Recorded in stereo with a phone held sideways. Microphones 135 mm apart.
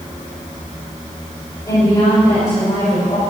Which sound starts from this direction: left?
A woman speaking, at 1.7 s.